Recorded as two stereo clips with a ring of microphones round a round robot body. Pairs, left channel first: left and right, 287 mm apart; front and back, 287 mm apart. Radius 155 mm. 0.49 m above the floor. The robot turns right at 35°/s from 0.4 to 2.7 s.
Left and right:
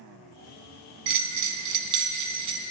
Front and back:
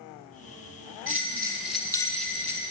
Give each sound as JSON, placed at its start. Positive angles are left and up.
{"t": 1.1, "sound": "a bell", "azimuth_deg": -115, "distance_m": 1.6}